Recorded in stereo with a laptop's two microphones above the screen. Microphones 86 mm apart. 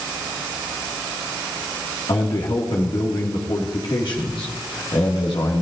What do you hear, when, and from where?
2.1 s a man speaking: 85° left, 2.0 m